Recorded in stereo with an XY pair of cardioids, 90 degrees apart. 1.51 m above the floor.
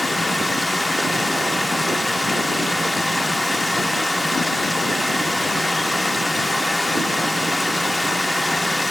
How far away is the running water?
About 0.9 m.